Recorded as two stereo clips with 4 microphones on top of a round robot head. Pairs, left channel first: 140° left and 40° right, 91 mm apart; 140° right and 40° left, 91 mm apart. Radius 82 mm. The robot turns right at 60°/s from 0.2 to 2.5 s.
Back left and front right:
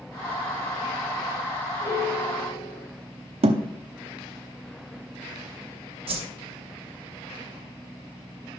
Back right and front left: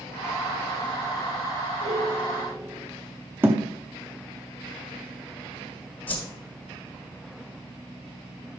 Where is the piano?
70° left, 2 m; by 2.9 s 115° left, 2 m.